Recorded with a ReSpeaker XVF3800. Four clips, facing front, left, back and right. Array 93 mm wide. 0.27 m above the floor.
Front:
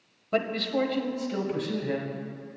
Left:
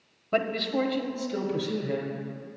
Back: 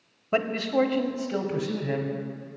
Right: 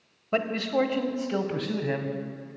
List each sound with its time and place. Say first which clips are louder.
0.3 s a man speaking: right 1 dB, back 3 dB; 165° right, 1.0 m; by 2.1 s 100° right, 1.5 m